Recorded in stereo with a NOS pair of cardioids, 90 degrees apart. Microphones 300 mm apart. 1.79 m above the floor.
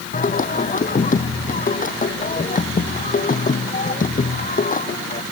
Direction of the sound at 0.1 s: 30° left.